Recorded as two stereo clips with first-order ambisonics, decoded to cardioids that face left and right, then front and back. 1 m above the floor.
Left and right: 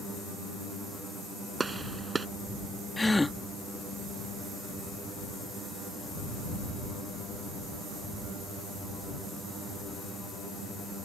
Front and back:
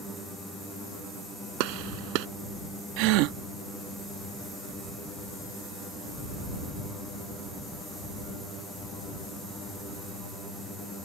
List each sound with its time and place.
1.6 s a gunshot: 165° right
3.0 s a gasp: 175° left